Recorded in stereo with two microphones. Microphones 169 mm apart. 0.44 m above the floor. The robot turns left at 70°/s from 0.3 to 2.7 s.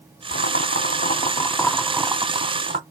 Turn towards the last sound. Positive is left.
turn(degrees=-60)